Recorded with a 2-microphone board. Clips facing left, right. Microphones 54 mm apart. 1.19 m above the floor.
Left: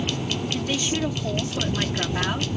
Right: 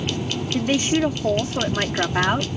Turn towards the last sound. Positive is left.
turn(degrees=-35)  # may be behind; listen again after turning